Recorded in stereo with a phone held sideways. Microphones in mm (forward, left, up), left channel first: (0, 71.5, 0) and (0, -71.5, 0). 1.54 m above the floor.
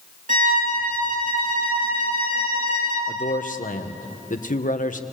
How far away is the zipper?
No zipper in this recording.